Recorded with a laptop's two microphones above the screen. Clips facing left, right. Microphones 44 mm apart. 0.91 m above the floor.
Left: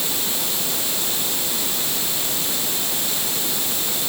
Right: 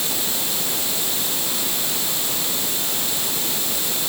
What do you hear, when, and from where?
Only background noise.